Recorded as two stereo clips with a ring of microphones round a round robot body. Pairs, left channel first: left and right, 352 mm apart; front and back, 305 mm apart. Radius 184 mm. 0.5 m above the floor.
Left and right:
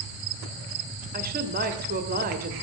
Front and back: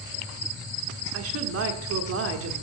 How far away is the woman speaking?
About 1.3 m.